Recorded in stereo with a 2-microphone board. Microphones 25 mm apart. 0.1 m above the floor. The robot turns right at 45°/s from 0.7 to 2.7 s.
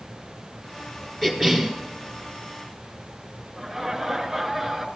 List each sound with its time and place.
1.2 s a cough: 5° left (ahead or behind), 1.2 m; by 1.7 s 5° right (ahead or behind), 1.2 m
3.6 s laughter: 5° right (ahead or behind), 1.1 m